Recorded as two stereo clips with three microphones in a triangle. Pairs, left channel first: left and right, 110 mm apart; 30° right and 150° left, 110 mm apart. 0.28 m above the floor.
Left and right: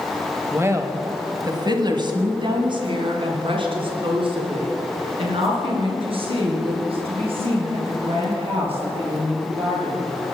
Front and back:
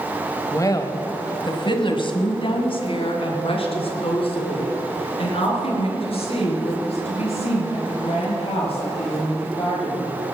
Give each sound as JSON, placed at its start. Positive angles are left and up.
{"t": 0.5, "sound": "a woman speaking", "azimuth_deg": -45, "distance_m": 1.1}